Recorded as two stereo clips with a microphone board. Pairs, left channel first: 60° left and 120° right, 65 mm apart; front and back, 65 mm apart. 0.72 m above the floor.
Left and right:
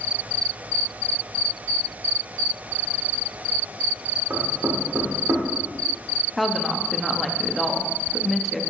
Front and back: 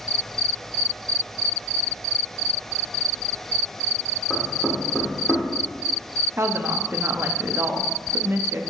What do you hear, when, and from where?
4.3 s knocking: 75° right, 2 m
6.4 s a woman speaking: 150° left, 0.7 m